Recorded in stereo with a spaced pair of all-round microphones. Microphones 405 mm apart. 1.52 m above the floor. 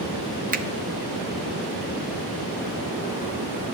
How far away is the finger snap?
About 0.6 m.